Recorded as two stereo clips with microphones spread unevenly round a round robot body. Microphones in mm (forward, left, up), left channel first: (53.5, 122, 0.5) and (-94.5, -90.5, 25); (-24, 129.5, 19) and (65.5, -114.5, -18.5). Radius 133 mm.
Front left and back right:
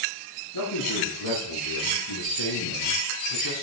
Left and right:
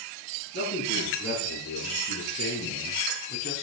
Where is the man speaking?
60° left, 8.5 m; by 3.6 s 45° left, 4 m.